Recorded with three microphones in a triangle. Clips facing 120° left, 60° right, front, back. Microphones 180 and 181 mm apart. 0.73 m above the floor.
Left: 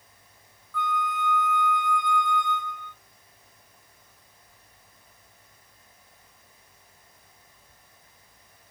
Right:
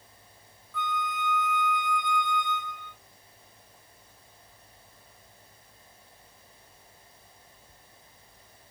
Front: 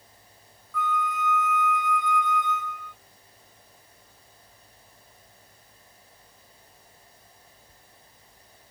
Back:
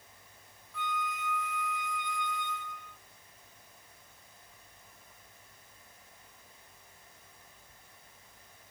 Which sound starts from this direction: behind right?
A flute, at 0.7 s.